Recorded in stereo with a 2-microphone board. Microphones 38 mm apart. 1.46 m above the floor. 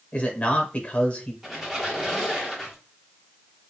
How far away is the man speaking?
About 1.0 m.